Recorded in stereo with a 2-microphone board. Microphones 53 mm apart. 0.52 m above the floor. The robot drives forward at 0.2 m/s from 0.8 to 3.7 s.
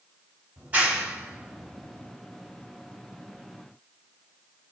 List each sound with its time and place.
0.6 s a clap: 40° right (ahead or behind), 1.7 m; by 2.1 s 35° right (ahead or behind), 1.9 m